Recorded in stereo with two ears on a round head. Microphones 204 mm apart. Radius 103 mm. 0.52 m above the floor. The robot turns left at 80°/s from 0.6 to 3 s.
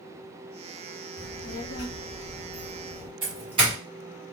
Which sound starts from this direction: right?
A doorbell, at 3.2 s.